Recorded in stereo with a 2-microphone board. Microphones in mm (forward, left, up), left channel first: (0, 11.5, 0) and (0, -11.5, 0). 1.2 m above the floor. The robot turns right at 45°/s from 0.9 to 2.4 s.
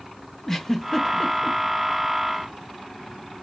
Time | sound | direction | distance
0.5 | a giggle | 15° left (ahead or behind) | 0.6 m